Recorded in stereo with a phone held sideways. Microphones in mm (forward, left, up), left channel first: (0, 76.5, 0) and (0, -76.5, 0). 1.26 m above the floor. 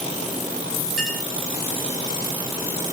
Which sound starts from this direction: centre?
A clink, at 1.0 s.